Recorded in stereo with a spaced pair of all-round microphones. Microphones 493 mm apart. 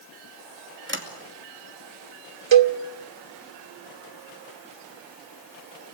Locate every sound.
0.9 s a sliding door: 25° right (ahead or behind), 2.5 m
2.5 s a cowbell: 65° right (ahead or behind), 0.7 m